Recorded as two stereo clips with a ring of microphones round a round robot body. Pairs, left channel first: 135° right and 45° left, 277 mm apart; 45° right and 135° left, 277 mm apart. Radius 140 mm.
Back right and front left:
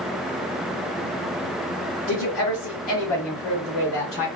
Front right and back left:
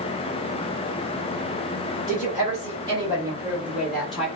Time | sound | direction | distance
2.1 | a woman speaking | 165° right | 1.7 m